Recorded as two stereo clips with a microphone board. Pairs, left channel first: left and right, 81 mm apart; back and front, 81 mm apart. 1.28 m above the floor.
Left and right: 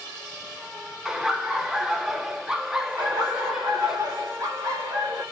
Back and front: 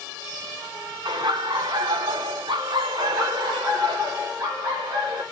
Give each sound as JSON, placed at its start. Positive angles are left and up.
{"t": 1.1, "sound": "laughter", "azimuth_deg": -10, "distance_m": 1.2}
{"t": 3.0, "sound": "laughter", "azimuth_deg": -45, "distance_m": 4.0}